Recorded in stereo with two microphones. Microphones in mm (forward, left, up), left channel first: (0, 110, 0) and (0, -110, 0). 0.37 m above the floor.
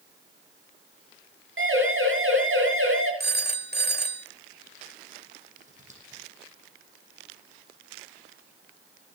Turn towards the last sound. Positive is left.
turn(degrees=-35)  # may be behind; listen again after turning